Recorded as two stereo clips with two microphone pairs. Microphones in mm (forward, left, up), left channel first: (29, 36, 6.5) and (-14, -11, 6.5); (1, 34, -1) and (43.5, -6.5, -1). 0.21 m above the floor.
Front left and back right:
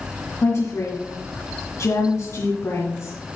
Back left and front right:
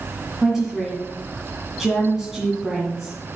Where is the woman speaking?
40° left, 2 m.